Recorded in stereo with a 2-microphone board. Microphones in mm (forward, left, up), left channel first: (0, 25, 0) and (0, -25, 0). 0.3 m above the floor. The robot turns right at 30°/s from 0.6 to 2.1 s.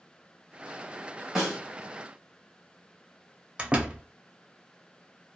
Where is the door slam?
25° right (ahead or behind), 0.6 m.